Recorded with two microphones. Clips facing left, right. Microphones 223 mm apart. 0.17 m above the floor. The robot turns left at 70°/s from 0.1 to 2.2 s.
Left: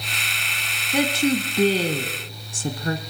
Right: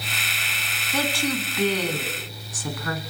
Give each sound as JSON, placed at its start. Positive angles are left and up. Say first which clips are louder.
{"t": 0.9, "sound": "a woman speaking", "louder": "left 5 dB", "side_deg": 15, "distance_m": 1.3}